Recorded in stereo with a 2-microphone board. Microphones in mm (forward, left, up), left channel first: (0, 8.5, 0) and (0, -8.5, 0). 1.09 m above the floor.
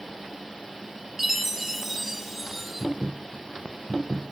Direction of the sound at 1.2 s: 10° right (ahead or behind).